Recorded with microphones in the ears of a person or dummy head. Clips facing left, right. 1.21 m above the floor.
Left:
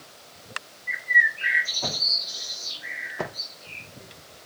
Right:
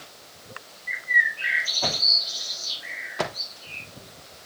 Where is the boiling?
I don't hear boiling.